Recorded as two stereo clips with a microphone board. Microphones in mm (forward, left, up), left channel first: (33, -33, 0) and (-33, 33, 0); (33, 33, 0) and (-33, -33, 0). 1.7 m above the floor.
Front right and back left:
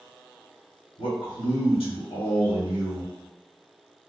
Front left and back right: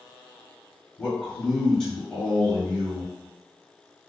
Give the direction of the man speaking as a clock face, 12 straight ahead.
1 o'clock.